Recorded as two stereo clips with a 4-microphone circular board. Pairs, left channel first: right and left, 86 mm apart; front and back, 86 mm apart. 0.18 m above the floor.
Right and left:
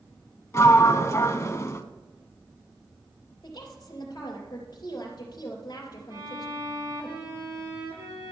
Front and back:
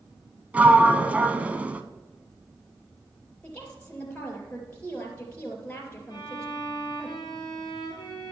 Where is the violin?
45° left, 3.5 m.